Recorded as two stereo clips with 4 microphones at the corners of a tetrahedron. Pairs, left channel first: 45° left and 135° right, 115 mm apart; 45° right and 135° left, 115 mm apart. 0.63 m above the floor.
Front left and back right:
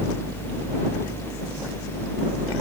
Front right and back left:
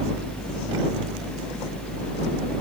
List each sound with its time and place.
Only background noise.